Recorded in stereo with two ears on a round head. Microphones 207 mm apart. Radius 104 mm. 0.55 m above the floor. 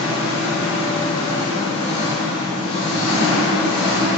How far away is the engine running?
About 1.0 m.